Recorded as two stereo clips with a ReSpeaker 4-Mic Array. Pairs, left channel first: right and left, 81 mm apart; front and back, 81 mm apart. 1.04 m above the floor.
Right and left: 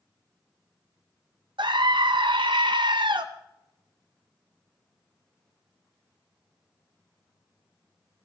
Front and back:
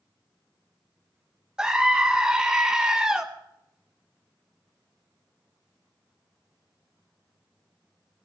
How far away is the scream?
About 0.6 m.